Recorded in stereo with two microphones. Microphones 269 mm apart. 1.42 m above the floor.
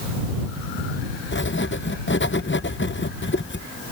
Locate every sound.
1.3 s writing: 45° left (ahead or behind)